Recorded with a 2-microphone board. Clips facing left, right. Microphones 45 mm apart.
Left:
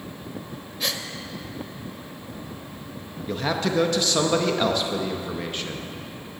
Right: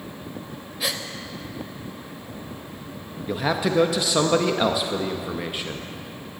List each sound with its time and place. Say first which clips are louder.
0.8 s a gasp: right 1 dB; 10° right (ahead or behind), 0.7 m
3.3 s a man speaking: right 2 dB; 5° right (ahead or behind), 0.6 m